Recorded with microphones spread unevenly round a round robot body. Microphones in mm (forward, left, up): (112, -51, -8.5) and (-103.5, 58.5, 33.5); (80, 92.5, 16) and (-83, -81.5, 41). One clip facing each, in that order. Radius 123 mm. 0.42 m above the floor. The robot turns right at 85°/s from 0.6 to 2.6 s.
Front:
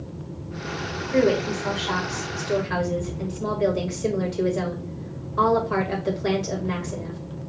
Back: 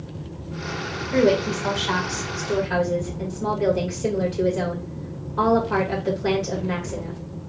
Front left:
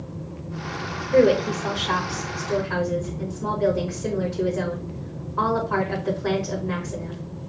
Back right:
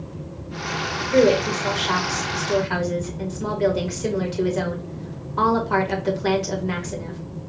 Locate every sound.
1.1 s a woman speaking: 130° left, 1.8 m; by 7.2 s 105° right, 1.8 m